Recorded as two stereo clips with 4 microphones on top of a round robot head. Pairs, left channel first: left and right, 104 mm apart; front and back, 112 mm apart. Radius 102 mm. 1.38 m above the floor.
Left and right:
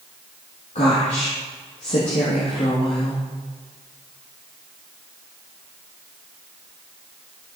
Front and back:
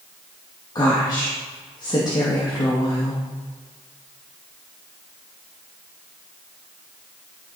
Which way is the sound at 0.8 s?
55° left.